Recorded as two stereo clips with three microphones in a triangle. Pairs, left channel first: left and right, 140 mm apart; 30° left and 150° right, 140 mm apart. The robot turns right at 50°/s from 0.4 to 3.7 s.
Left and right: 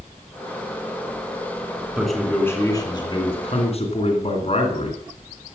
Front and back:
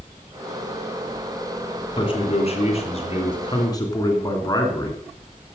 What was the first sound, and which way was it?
A man speaking, 5° right.